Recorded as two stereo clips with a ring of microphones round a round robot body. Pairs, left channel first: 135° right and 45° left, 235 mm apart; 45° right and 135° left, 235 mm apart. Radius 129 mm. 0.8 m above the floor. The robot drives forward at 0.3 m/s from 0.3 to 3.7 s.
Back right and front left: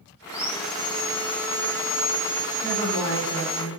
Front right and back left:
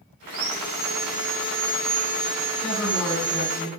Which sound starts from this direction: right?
A woman speaking, at 2.6 s.